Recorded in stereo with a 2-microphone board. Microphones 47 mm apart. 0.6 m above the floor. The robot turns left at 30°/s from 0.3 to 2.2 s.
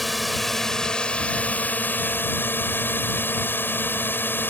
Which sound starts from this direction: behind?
A drone, at 0.0 s.